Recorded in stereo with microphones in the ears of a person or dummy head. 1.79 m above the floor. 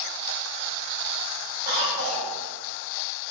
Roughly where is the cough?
Right.